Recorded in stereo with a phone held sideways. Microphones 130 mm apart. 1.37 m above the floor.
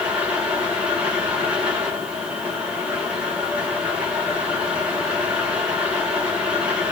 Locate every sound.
0.0 s a fan: 10° right (ahead or behind), 1.4 m